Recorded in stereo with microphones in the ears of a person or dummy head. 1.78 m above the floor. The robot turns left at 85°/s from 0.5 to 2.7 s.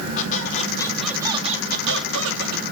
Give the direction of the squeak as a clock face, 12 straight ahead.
10 o'clock.